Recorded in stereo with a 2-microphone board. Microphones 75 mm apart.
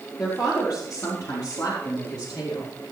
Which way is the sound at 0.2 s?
50° left (ahead or behind).